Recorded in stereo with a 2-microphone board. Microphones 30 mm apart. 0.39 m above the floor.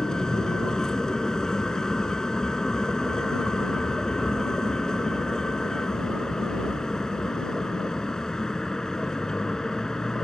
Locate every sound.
0.0 s a vehicle: 20° left (ahead or behind)